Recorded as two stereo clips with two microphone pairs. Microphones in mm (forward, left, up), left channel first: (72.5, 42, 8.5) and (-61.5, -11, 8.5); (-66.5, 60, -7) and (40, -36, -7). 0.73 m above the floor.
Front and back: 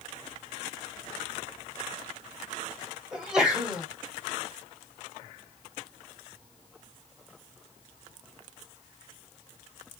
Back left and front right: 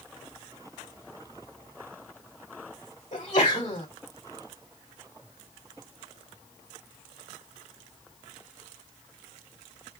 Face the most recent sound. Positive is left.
turn(degrees=115)